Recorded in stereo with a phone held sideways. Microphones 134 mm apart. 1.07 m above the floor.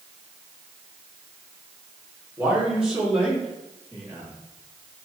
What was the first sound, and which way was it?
A man speaking, 10° right (ahead or behind).